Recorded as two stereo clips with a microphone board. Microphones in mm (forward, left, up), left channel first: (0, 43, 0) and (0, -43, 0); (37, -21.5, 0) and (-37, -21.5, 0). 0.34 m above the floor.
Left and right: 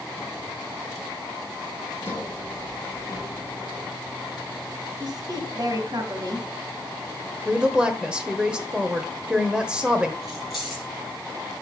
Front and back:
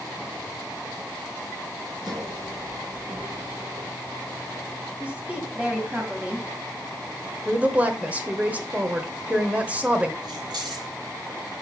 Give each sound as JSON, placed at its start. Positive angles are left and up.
{"t": 2.0, "sound": "a sliding door", "azimuth_deg": 155, "distance_m": 3.5}
{"t": 5.0, "sound": "a woman speaking", "azimuth_deg": -110, "distance_m": 2.5}
{"t": 7.5, "sound": "a woman speaking", "azimuth_deg": -150, "distance_m": 1.1}
{"t": 10.2, "sound": "keys jangling", "azimuth_deg": 180, "distance_m": 4.5}